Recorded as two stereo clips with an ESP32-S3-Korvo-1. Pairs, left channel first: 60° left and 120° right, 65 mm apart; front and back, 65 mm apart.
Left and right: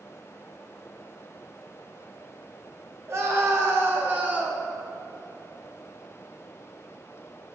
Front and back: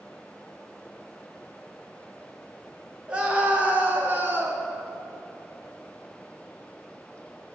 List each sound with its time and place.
3.1 s a scream: 115° right, 1.7 m; by 4.7 s 170° right, 1.6 m